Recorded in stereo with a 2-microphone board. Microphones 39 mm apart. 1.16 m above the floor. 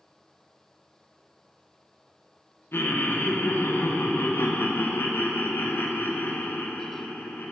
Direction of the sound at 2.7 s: 70° left (ahead or behind).